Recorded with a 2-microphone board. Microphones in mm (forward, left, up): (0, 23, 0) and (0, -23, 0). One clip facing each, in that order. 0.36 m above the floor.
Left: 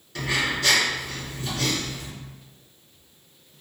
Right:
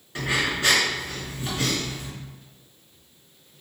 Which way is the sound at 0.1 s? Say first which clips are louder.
Even; 25° right (ahead or behind).